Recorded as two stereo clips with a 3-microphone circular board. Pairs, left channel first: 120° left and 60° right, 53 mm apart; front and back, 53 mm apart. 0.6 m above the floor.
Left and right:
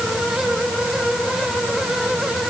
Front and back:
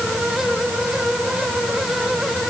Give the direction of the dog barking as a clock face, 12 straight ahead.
No dog barking in this recording.